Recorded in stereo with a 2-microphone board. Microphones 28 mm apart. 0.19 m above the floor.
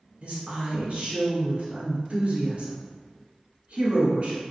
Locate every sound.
0.2 s a woman speaking: 55° right (ahead or behind), 1.7 m